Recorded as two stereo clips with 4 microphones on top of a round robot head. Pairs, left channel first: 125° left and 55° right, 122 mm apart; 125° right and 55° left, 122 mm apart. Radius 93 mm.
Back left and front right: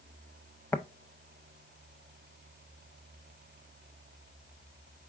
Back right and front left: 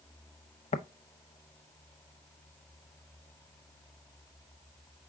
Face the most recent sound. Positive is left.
turn(degrees=-160)